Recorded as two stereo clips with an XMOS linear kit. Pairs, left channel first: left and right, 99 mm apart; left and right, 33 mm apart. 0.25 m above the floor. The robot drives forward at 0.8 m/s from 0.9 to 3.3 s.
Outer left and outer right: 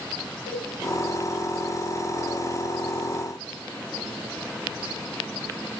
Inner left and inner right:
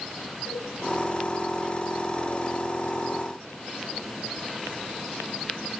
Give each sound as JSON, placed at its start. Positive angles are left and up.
{"t": 0.5, "sound": "a cowbell", "side_deg": 75, "distance_m": 4.5}